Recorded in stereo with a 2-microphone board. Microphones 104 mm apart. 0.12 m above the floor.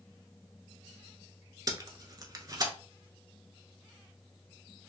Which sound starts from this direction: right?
Tape being pulled, at 1.7 s.